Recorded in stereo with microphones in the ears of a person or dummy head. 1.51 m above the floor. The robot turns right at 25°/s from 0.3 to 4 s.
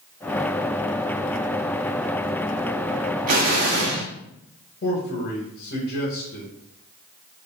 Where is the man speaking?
50° left (ahead or behind), 1.6 m.